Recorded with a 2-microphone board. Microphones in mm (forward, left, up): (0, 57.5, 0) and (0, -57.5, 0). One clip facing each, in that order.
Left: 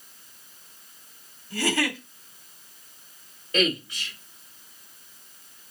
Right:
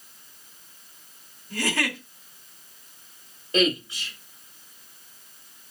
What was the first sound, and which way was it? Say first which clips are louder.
A giggle: left 2 dB; 55° right (ahead or behind).